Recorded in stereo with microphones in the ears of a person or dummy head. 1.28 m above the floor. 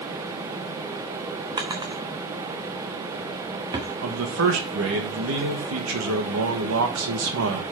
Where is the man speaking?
75° right (ahead or behind), 1.7 m.